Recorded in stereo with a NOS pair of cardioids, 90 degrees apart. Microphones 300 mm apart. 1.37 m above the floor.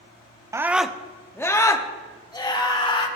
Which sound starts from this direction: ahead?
A scream, at 0.5 s.